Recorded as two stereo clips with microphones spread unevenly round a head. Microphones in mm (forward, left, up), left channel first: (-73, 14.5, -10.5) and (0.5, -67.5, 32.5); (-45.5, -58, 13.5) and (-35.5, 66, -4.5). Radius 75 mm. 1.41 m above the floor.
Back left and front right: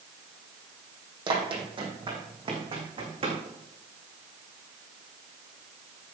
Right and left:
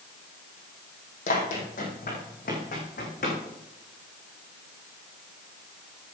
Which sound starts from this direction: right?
Running footsteps, at 1.3 s.